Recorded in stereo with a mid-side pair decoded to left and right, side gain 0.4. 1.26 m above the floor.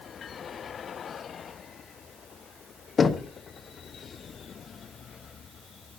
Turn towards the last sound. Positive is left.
turn(degrees=50)